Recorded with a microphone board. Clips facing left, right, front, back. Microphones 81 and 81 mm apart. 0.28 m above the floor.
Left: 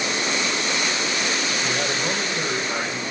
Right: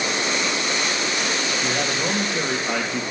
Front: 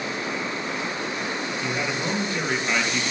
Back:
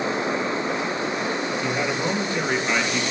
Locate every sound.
1.6 s a man speaking: 95° right, 5 m